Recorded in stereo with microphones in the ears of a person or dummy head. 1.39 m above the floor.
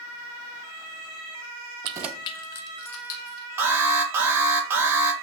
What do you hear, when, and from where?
1.8 s keys jangling: 35° right (ahead or behind), 0.6 m; by 3.5 s 75° left (ahead or behind), 2 m
3.6 s an alarm: 15° right (ahead or behind), 1.5 m